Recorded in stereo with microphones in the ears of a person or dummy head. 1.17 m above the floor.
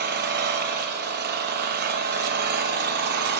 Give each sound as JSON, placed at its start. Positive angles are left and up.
{"t": 0.0, "sound": "an engine running", "side_deg": -50, "distance_m": 1.0}